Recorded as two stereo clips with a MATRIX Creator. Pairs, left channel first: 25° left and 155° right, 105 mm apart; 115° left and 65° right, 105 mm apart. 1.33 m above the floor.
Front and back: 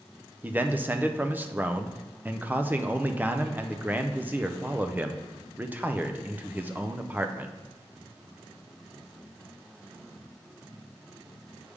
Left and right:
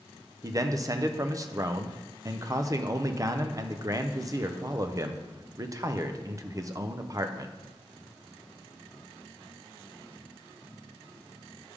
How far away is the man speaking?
About 0.5 m.